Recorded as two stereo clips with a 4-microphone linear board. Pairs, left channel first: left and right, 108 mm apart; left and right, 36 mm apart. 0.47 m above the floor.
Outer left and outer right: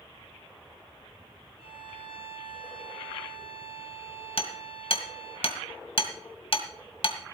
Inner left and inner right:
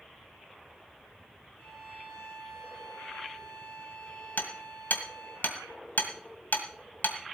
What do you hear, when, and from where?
1.6 s a violin: 60° left (ahead or behind), 7.5 m
4.4 s hammering: 60° left (ahead or behind), 1.8 m